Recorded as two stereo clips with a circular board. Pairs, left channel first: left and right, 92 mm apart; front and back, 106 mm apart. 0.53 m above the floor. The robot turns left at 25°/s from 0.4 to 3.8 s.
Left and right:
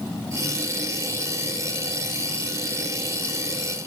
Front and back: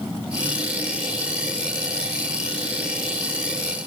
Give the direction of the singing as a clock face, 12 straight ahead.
I don't hear singing.